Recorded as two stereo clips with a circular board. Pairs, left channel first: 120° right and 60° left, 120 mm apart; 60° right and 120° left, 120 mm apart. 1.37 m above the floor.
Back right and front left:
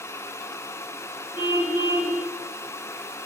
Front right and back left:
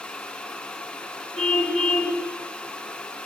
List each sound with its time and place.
1.4 s a car horn: 80° right, 6 m